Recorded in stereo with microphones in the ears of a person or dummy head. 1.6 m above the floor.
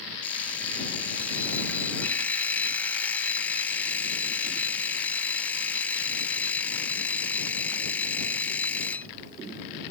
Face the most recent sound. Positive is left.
turn(degrees=10)  # may be behind; listen again after turning